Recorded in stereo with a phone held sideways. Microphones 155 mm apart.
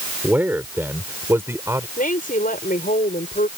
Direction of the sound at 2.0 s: 70° left (ahead or behind).